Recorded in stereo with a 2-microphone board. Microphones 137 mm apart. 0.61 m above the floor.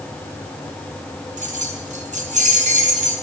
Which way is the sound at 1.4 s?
65° right (ahead or behind).